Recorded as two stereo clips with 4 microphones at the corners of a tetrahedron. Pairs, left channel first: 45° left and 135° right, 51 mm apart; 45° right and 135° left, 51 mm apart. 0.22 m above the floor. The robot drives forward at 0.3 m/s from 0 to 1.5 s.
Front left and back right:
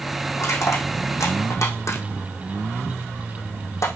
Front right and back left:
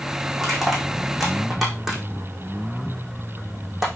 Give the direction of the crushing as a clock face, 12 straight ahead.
10 o'clock.